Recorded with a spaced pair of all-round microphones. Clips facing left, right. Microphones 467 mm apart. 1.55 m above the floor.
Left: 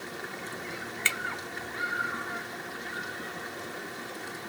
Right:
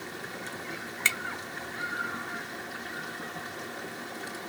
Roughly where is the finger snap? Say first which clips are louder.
Left 1 dB; right.